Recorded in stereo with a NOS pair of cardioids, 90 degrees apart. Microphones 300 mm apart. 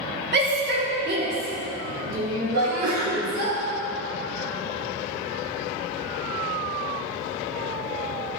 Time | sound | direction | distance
0.3 | a shout | 35° right | 2.5 m
2.5 | a sneeze | 65° right | 1.9 m